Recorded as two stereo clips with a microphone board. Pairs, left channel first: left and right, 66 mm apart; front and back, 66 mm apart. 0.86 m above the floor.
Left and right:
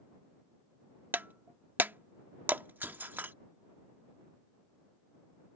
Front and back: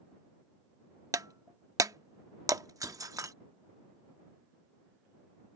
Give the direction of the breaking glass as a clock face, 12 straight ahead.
5 o'clock.